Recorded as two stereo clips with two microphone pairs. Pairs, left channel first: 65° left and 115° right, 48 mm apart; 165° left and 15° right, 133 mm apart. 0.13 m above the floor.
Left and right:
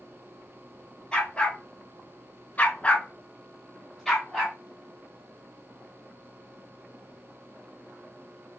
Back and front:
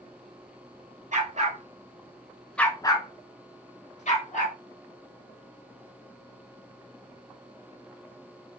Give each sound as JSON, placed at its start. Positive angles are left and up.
{"t": 1.1, "sound": "a dog barking", "azimuth_deg": 0, "distance_m": 1.0}